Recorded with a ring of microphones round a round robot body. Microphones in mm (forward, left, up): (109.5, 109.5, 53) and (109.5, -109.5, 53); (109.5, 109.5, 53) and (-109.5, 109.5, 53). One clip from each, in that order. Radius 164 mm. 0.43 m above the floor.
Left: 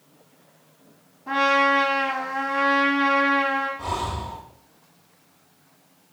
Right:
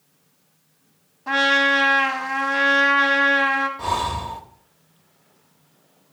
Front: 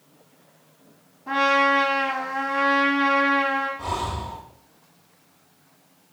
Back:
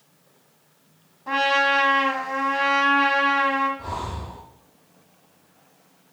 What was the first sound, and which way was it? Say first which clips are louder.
A trumpet: right 2 dB, front 1 dB; 115° right.